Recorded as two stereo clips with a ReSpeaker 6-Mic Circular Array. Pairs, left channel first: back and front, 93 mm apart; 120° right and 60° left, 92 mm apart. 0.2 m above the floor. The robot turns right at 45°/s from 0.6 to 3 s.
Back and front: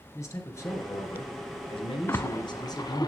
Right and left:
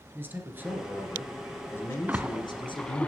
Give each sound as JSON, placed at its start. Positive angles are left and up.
{"t": 0.1, "sound": "a man speaking", "azimuth_deg": 125, "distance_m": 3.0}
{"t": 2.1, "sound": "a splash", "azimuth_deg": 125, "distance_m": 0.7}